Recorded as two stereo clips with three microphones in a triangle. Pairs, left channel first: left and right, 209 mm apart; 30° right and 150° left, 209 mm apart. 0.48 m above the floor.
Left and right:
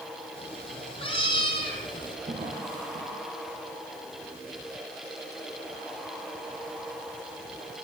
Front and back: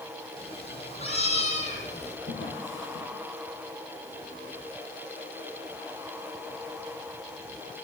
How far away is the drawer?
About 9 m.